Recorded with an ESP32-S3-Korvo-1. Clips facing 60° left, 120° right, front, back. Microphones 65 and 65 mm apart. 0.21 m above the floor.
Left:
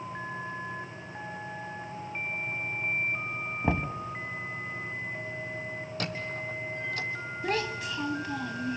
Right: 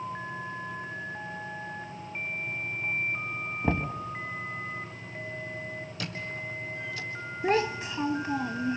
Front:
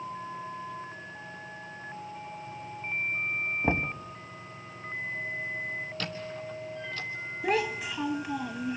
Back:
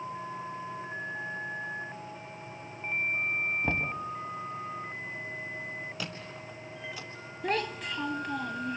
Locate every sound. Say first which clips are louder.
3.6 s knocking: even, front 2 dB; straight ahead, 1.0 m
6.0 s a squeak: left 2 dB, front 4 dB; 100° left, 1.8 m
7.4 s a child speaking: right 5 dB, front 3 dB; 75° right, 0.6 m